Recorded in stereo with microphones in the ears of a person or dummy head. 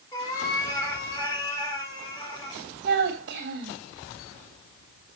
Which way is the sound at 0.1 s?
25° left (ahead or behind).